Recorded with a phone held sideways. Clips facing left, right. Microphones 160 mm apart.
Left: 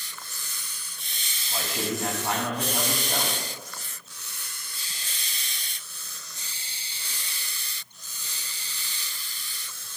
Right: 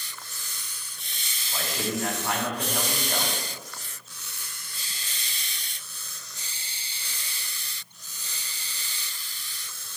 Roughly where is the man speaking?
Left.